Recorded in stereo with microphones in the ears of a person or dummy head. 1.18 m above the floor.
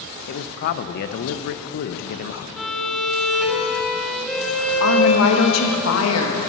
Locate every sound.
0.3 s a man speaking: 60° left (ahead or behind), 0.5 m
2.6 s a violin: centre (ahead or behind), 1.1 m
4.8 s a woman speaking: 75° left (ahead or behind), 1.2 m